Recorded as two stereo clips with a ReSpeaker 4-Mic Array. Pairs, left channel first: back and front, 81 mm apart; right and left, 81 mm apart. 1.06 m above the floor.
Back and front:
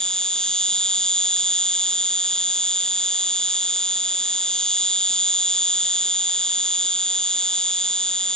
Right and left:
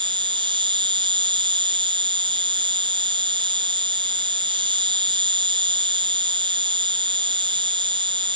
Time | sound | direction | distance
0.0 | an insect | 100° left | ?